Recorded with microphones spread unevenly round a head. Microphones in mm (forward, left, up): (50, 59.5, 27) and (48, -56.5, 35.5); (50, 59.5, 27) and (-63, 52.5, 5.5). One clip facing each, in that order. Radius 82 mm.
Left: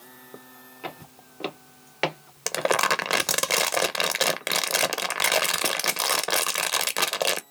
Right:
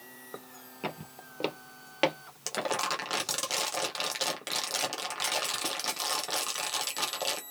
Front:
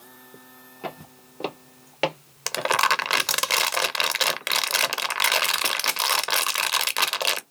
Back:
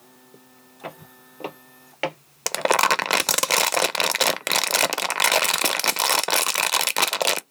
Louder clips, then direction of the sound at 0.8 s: Even, front 2 dB; 55° right.